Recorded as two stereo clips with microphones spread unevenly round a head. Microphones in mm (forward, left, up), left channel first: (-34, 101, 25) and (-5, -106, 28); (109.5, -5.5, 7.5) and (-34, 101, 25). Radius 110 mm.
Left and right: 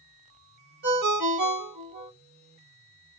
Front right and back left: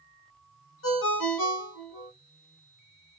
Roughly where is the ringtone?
Ahead right.